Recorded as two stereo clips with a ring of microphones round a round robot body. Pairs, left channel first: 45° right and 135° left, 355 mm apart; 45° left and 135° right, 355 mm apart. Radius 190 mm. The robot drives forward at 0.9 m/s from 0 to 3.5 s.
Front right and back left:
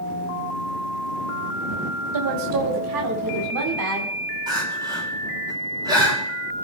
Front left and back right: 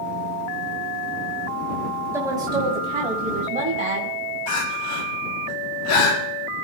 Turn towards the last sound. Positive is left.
turn(degrees=55)